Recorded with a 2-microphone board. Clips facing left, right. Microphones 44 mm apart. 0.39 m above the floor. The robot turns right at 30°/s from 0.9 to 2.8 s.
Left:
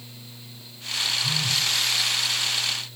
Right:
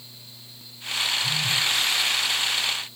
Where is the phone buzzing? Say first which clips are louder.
Right 1 dB; 30° left (ahead or behind), 1.2 m; by 1.7 s 15° left (ahead or behind), 1.2 m.